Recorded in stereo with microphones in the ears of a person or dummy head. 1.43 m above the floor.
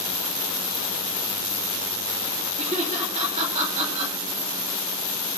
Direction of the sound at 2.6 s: 25° right (ahead or behind).